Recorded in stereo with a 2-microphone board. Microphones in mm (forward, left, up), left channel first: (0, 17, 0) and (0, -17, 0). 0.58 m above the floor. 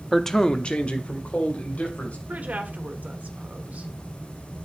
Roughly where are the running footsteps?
I don't hear running footsteps.